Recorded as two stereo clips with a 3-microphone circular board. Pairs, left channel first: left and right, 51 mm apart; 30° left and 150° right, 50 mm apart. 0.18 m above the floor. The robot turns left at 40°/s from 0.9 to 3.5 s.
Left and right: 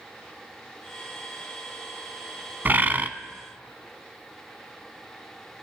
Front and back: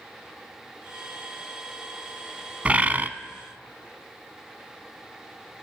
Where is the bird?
100° right, 0.5 m; by 3.1 s 120° right, 0.5 m.